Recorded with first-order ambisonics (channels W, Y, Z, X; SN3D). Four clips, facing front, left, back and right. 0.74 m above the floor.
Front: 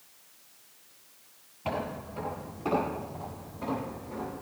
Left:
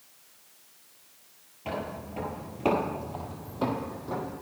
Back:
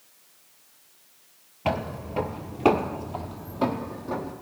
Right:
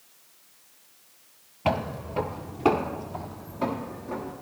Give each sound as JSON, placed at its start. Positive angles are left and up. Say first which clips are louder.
{"t": 1.6, "sound": "footsteps", "louder": "right 7 dB, back 5 dB", "azimuth_deg": -130, "distance_m": 1.1}